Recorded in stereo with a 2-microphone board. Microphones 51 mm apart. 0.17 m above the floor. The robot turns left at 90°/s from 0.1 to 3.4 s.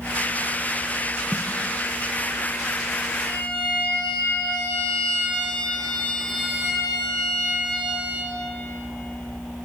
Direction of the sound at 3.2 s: 30° left (ahead or behind).